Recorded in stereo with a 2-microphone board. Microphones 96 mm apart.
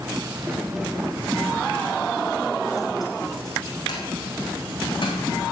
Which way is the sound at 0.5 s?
15° right (ahead or behind).